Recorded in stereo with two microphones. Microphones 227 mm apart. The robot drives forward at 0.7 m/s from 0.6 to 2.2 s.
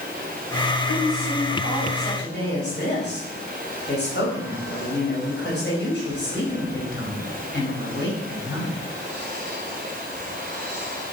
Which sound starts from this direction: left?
A woman speaking, at 0.9 s.